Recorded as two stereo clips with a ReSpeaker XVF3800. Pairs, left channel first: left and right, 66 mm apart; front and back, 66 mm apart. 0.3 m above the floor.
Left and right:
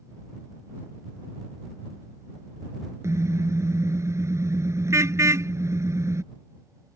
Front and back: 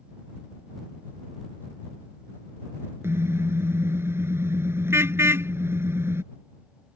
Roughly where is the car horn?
Behind right.